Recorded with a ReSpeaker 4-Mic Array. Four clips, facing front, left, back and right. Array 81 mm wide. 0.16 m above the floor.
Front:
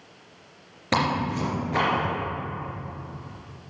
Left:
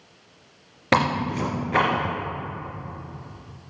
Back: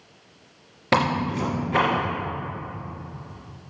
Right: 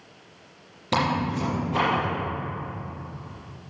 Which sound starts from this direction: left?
Tearing paper, at 0.9 s.